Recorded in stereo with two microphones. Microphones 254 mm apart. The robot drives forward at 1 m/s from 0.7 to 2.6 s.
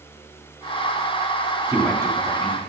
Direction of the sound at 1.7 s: 10° right (ahead or behind).